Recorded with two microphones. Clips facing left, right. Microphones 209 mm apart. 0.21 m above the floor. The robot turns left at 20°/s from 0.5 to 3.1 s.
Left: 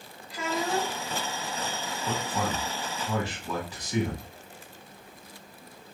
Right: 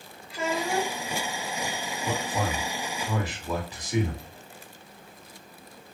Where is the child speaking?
5° right (ahead or behind), 0.8 m; by 1.0 s 5° left (ahead or behind), 0.8 m.